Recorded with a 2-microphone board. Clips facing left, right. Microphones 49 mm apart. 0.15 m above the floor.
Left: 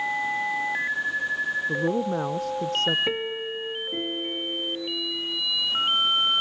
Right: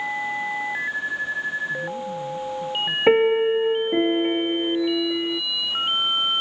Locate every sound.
1.7 s a woman speaking: 80° left
3.1 s a piano: 50° right (ahead or behind)